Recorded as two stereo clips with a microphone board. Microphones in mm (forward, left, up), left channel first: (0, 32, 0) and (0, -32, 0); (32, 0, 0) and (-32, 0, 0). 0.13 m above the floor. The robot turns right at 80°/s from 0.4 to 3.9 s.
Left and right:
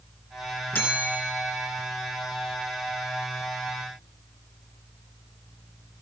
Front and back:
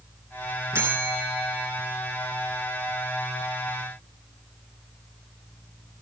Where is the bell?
140° left, 2.5 m; by 1.7 s 140° right, 2.5 m.